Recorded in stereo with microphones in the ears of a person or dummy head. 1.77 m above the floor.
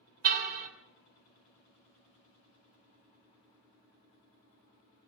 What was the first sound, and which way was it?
A car horn, 55° right (ahead or behind).